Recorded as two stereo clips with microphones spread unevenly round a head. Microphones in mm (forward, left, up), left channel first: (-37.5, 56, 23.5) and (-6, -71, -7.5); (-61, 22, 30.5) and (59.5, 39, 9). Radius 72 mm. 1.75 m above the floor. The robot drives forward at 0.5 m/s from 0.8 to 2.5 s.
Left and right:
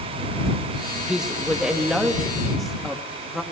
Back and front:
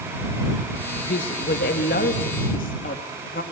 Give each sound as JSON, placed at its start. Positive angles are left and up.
{"t": 1.0, "sound": "a woman speaking", "azimuth_deg": -165, "distance_m": 2.0}